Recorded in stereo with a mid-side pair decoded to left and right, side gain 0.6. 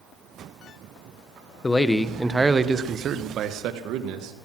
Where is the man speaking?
20° left, 1.3 m; by 4.3 s 75° right, 2 m.